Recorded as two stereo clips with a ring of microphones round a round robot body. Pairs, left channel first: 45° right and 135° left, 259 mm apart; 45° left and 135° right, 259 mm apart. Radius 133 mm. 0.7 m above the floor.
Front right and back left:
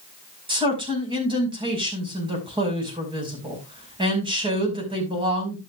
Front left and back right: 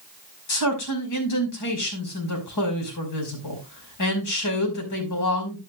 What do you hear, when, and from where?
0.5 s a man speaking: 65° left, 5.5 m